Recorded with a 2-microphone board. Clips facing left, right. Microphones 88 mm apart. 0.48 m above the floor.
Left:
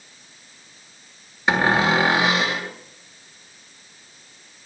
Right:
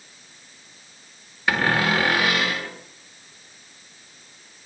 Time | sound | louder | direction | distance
1.5 | a cupboard door | left 3 dB | 20° left (ahead or behind) | 1.7 m